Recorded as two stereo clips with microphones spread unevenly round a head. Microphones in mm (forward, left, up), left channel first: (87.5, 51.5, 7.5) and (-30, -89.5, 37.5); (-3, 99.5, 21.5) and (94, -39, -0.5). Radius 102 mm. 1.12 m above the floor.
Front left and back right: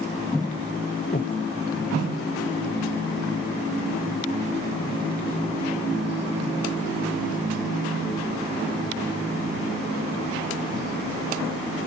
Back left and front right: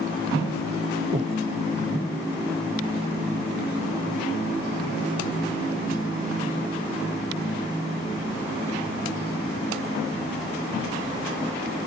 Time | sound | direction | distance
1.1 | breathing | straight ahead | ?